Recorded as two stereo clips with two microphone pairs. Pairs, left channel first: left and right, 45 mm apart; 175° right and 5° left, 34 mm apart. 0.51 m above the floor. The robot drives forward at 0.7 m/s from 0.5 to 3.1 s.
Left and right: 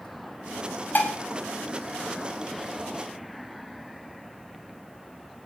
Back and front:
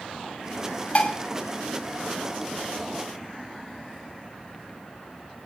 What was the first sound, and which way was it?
Dishes clattering, 135° left.